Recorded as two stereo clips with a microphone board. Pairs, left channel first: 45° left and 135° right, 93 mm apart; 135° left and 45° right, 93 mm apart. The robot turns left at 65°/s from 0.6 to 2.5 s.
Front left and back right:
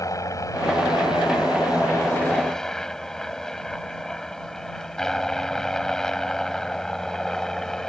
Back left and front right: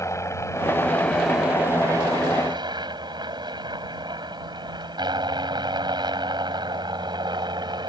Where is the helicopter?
85° left; by 7.9 s 35° right.